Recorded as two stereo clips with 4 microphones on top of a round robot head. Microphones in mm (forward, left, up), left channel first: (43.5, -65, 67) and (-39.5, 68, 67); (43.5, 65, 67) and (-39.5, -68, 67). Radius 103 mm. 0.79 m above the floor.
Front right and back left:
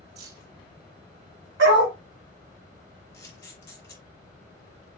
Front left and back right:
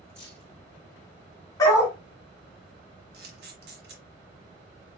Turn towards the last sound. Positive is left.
turn(degrees=-130)